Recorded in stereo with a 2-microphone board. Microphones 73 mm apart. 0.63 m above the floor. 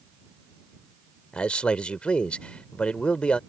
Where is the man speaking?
15° left (ahead or behind).